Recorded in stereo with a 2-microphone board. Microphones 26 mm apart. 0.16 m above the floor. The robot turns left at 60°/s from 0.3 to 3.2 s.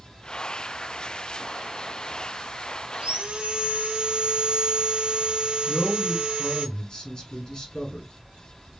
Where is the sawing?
40° right (ahead or behind), 0.8 m; by 6.7 s 55° right (ahead or behind), 0.8 m.